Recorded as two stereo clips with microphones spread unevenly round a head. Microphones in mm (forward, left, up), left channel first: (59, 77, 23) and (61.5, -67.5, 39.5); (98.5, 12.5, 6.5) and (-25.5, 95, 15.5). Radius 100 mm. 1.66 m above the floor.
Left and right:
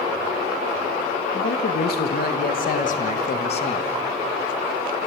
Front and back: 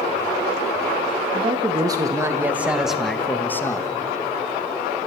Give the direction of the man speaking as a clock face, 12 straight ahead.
9 o'clock.